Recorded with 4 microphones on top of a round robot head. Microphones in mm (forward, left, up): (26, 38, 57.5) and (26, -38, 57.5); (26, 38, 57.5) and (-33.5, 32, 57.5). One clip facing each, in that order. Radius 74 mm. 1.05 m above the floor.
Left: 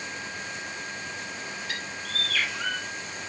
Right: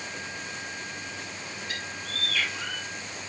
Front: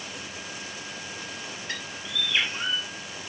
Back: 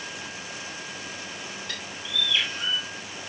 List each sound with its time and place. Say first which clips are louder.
1.7 s a bird: left 2 dB, front 1 dB; 70° left, 4 m